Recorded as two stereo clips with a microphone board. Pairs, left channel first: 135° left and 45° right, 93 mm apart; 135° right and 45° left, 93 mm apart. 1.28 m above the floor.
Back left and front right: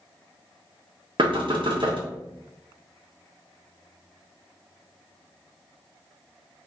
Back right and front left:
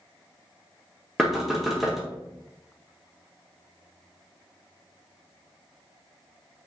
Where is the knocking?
45° right, 0.7 m.